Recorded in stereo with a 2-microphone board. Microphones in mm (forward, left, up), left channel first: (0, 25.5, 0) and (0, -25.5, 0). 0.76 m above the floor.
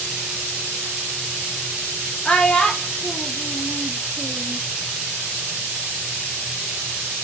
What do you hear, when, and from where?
2.2 s a child speaking: 20° left (ahead or behind), 1.1 m